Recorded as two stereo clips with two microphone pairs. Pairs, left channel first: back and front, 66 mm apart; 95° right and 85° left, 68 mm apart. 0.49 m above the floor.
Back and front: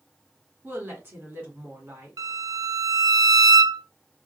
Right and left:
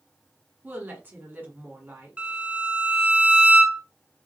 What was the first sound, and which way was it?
A woman speaking, 40° left.